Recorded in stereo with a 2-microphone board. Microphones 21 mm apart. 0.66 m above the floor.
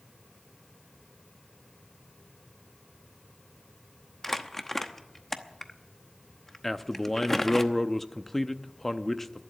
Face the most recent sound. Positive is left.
turn(degrees=10)  # may be behind; listen again after turning